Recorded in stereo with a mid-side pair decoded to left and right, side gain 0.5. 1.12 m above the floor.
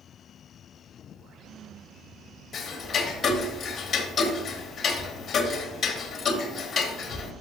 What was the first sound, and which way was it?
Ticking, 45° left.